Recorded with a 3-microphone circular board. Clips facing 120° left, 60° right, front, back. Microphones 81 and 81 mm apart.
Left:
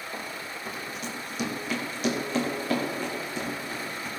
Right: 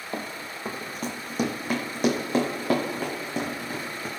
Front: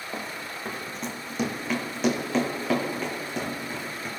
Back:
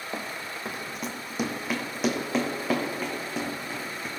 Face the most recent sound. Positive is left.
turn(degrees=-95)